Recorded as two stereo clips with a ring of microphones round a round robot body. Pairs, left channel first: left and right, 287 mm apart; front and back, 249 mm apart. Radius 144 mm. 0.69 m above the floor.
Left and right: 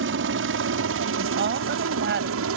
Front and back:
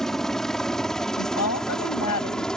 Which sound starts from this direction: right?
A helicopter, at 0.0 s.